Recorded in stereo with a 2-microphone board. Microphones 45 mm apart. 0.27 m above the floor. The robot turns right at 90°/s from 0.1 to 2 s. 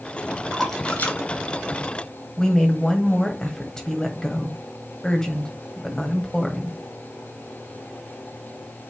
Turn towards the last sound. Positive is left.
turn(degrees=15)  # may be behind; listen again after turning